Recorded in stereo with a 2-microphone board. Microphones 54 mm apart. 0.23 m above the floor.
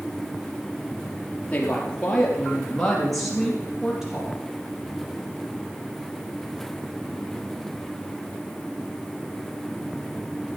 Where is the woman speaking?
20° left (ahead or behind), 4 m; by 4.3 s 10° right (ahead or behind), 5.5 m.